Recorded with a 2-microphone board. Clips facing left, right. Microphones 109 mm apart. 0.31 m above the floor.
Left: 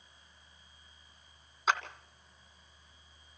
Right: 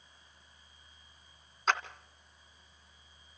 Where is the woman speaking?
I don't hear a woman speaking.